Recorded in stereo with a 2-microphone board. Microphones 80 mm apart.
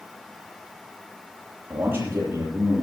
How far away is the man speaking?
About 6.5 m.